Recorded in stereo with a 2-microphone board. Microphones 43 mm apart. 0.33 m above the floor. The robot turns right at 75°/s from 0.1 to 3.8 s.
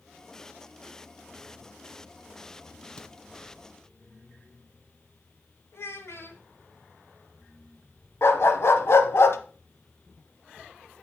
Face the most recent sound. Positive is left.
turn(degrees=70)  # may be behind; listen again after turning